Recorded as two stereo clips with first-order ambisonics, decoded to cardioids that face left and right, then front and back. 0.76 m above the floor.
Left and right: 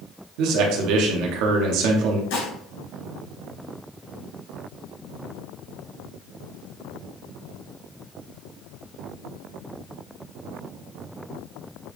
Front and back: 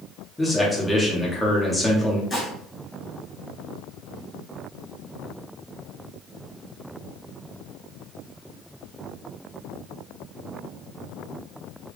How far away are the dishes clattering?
About 3 m.